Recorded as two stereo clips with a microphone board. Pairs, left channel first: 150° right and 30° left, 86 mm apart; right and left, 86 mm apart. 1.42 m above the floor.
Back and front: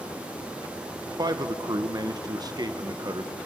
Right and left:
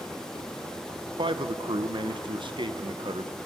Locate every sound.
1.2 s a man speaking: 70° left, 1.0 m